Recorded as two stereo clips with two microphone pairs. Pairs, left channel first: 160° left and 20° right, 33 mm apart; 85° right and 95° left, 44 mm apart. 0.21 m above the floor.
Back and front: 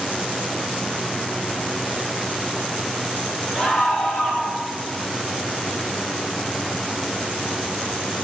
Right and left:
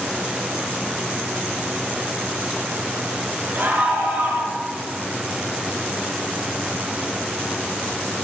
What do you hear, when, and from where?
3.5 s a scream: 50° left, 3.5 m